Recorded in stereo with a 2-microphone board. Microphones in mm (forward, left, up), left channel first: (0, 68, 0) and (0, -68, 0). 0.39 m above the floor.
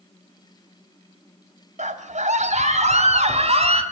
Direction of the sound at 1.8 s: 60° right (ahead or behind).